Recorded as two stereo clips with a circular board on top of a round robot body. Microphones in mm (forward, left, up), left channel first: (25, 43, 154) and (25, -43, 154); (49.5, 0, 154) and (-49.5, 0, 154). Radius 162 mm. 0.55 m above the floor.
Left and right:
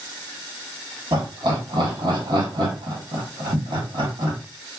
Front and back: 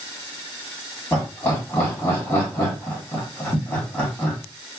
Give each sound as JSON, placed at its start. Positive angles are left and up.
{"t": 1.1, "sound": "laughter", "azimuth_deg": -70, "distance_m": 1.6}